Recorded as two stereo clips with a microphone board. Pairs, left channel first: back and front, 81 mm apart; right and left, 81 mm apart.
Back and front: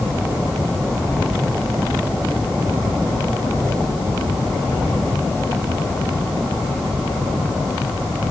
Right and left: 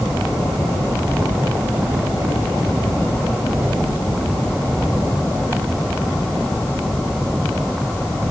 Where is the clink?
I don't hear a clink.